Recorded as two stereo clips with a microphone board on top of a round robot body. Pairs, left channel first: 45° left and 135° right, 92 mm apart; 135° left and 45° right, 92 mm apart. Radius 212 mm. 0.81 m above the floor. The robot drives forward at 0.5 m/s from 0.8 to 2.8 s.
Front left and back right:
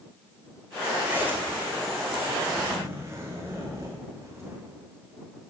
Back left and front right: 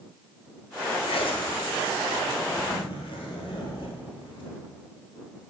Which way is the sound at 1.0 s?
155° left.